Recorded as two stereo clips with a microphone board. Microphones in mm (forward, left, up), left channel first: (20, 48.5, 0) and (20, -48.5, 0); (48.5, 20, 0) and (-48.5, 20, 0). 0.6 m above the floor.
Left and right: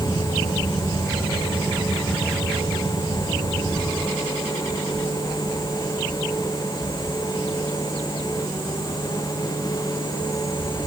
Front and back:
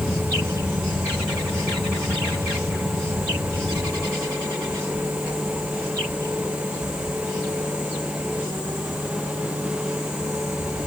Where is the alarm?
No alarm in this recording.